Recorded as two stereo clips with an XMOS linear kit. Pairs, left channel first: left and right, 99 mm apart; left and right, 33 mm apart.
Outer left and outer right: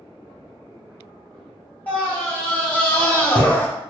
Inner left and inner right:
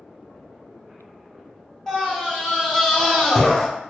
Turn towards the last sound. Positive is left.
turn(degrees=15)  # may be behind; listen again after turning